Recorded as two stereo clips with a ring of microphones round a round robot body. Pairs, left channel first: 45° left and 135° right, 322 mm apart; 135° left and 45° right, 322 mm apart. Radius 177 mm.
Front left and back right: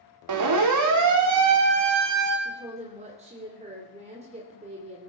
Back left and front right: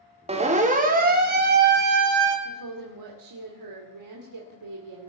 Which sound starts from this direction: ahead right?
A woman speaking, at 2.5 s.